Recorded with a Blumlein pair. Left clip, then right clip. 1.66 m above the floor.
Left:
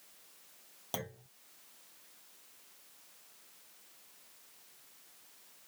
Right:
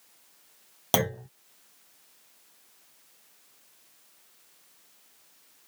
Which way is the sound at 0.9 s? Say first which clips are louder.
Right 16 dB; 35° right.